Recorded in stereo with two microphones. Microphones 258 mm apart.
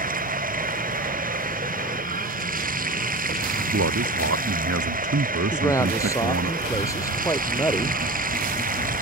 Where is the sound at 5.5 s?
10° left (ahead or behind).